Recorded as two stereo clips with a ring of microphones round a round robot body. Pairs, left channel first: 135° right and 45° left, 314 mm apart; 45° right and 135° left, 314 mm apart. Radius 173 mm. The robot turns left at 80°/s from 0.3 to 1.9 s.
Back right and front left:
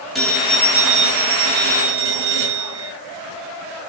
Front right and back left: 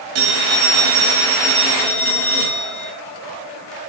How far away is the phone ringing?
About 8.5 m.